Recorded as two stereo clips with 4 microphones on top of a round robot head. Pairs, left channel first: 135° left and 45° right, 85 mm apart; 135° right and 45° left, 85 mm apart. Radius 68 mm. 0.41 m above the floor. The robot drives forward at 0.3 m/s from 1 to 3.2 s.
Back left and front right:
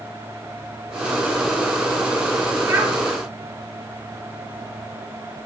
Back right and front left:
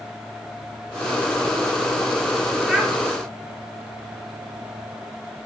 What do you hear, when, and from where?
2.7 s a child speaking: 35° right, 0.9 m; by 2.9 s 45° right, 0.8 m